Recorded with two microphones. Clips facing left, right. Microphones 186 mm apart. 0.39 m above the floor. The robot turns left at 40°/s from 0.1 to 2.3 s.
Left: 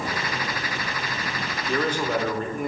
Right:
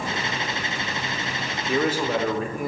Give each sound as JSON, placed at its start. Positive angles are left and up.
{"t": 1.7, "sound": "a man speaking", "side_deg": -10, "distance_m": 0.8}